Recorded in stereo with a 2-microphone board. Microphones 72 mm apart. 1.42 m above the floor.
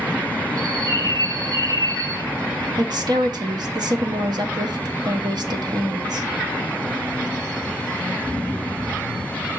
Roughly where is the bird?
Right.